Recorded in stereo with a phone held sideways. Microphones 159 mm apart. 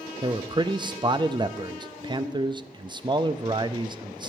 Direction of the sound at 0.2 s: 30° right (ahead or behind).